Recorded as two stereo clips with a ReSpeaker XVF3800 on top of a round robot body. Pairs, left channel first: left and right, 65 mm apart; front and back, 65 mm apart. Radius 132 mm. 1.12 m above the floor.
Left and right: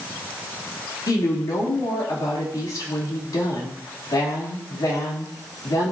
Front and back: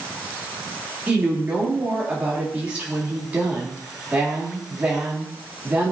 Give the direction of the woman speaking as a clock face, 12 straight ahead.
8 o'clock.